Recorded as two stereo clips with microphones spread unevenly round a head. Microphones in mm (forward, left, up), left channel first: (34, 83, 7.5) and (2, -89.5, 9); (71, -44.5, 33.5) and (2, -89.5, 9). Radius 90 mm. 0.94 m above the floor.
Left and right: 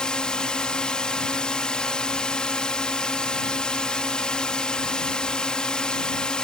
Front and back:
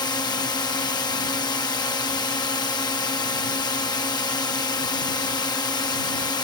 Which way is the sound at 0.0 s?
5° right.